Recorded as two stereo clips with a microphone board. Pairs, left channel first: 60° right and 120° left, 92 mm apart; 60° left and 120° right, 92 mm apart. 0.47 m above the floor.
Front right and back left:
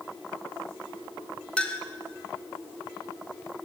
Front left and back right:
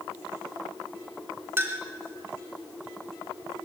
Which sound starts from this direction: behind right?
A clink, at 1.6 s.